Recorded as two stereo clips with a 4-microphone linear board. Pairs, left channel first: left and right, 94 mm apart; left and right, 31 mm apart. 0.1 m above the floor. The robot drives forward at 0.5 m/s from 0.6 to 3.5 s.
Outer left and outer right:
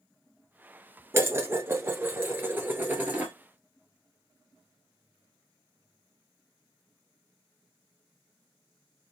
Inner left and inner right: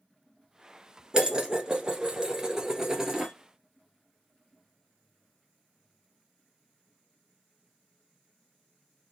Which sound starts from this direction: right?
Dishes clattering, at 1.1 s.